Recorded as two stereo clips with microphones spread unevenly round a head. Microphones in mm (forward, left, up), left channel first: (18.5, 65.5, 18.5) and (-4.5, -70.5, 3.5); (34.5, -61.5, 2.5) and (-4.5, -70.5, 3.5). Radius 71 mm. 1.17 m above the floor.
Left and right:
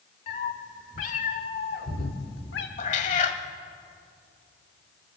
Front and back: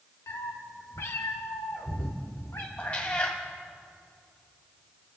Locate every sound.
0.3 s a cat meowing: 35° left, 2.5 m; by 2.7 s 85° left, 2 m
2.8 s a cat meowing: 80° left, 1.4 m